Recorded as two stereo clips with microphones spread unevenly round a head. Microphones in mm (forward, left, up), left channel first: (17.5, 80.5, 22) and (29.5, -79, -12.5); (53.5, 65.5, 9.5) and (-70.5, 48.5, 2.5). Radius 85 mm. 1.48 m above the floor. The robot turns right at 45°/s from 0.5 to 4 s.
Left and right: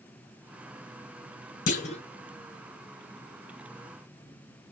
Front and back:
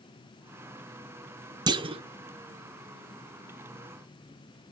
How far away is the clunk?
About 0.6 m.